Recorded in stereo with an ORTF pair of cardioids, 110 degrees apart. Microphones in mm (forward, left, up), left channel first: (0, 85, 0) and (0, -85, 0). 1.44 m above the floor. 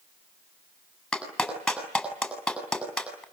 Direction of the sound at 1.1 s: 5° left.